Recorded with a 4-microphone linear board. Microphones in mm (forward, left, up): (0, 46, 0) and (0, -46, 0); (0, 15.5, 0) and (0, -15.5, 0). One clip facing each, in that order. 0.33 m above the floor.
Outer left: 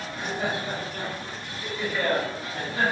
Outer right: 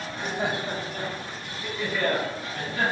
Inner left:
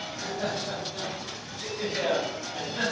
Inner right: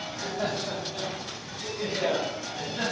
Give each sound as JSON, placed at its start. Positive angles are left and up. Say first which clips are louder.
{"t": 0.1, "sound": "laughter", "louder": "outer right 1 dB, inner right 1 dB", "side_deg": -35, "distance_m": 1.4}